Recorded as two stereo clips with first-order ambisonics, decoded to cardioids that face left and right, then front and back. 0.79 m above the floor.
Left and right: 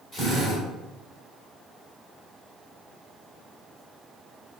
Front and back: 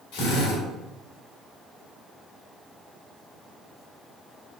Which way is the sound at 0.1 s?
Straight ahead.